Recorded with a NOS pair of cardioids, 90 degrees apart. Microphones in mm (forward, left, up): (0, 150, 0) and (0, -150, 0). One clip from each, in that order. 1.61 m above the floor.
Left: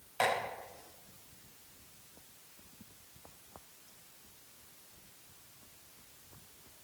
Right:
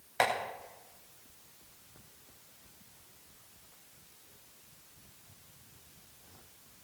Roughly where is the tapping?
Ahead right.